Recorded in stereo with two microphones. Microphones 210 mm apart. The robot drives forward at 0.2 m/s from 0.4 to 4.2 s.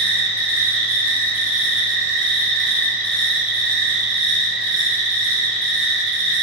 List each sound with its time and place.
0.0 s an insect: 10° right (ahead or behind), 0.8 m; by 6.4 s 5° right (ahead or behind), 1.6 m